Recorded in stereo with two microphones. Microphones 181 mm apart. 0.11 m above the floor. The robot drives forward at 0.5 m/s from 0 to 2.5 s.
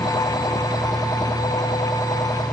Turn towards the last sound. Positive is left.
No sound to turn to.